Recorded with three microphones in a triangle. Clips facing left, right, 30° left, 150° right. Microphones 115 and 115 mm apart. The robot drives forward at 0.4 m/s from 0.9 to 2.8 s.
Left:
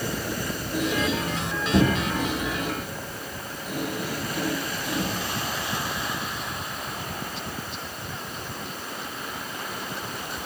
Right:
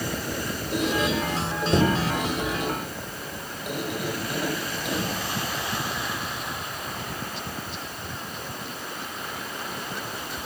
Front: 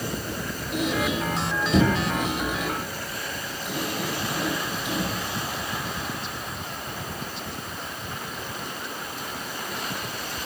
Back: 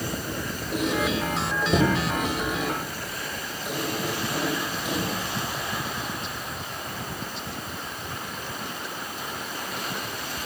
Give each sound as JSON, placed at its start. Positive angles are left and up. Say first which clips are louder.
{"t": 0.7, "sound": "a squeak", "louder": "right 1 dB, even", "azimuth_deg": -105, "distance_m": 5.5}